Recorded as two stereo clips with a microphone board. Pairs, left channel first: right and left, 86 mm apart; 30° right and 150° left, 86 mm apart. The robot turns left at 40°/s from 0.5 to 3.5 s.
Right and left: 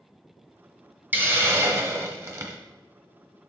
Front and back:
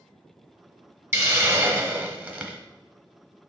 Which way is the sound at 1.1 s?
140° left.